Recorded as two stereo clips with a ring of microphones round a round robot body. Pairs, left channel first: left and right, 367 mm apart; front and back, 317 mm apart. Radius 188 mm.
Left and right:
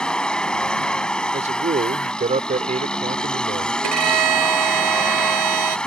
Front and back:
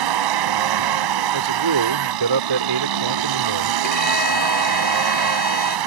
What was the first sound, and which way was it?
A vehicle, straight behind.